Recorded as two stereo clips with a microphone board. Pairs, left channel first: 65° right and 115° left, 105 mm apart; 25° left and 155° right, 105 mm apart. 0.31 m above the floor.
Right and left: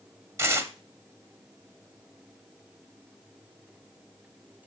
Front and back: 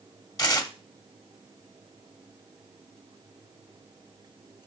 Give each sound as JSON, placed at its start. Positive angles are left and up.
{"t": 0.4, "sound": "tearing paper", "azimuth_deg": 60, "distance_m": 0.9}